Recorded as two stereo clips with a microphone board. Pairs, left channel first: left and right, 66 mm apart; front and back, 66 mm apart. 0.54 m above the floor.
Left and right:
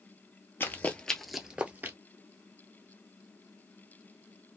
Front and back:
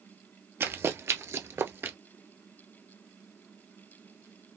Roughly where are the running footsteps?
Behind left.